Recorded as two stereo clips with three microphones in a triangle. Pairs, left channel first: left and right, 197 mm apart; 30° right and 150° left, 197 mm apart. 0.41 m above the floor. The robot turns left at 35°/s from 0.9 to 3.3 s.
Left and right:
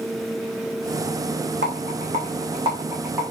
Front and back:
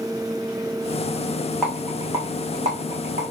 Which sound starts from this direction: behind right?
A rattle, at 1.6 s.